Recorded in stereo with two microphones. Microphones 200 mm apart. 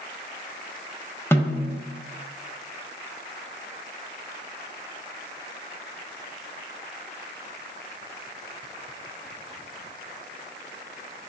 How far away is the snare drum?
About 0.5 m.